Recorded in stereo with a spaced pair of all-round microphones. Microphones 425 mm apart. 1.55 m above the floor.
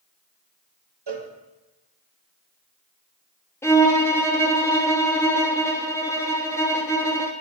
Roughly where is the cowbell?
Right.